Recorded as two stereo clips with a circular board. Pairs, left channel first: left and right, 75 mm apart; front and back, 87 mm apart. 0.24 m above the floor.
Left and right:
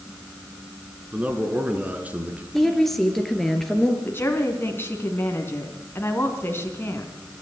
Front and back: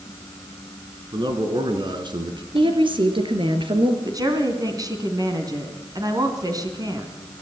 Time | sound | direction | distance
1.1 | a man speaking | 160° right | 3 m
2.5 | a woman speaking | 175° left | 3 m
4.0 | a woman speaking | 145° left | 3 m